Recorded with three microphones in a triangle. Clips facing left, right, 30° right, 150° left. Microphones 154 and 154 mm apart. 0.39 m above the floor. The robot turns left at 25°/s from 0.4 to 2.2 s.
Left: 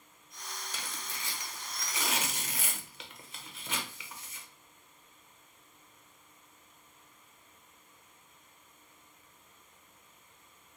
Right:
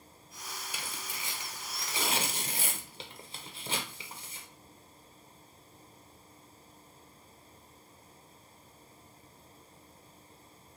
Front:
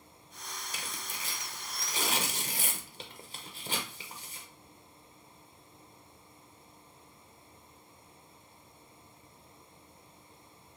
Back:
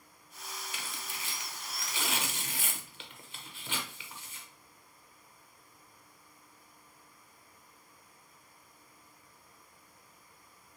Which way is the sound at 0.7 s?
15° right.